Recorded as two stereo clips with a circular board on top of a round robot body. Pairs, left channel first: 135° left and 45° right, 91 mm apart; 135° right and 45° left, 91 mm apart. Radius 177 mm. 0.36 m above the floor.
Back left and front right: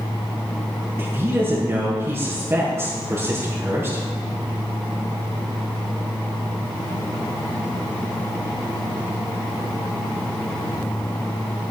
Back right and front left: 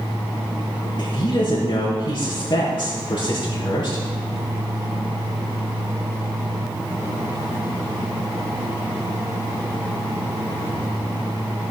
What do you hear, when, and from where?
1.0 s a woman speaking: 105° right, 4 m